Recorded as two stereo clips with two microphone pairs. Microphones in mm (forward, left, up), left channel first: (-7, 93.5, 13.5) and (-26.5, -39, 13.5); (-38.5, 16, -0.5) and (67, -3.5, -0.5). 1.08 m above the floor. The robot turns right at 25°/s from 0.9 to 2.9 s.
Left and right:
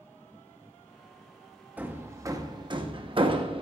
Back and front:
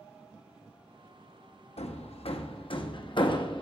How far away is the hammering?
About 1.0 m.